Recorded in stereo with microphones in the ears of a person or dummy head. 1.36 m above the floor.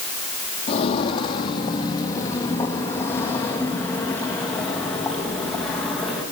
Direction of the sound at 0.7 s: 35° left (ahead or behind).